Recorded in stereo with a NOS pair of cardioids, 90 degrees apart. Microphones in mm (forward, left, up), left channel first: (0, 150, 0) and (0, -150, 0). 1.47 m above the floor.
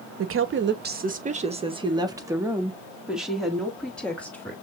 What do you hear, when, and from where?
0.2 s a woman speaking: 50° right, 1.1 m; by 4.5 s 5° left, 2.5 m